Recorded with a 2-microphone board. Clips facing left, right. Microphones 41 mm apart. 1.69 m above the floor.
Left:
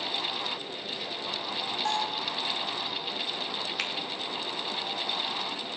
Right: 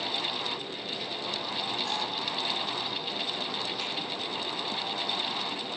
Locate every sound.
1.9 s a bell: 75° left (ahead or behind), 6 m
3.8 s a finger snap: 80° left, 2.5 m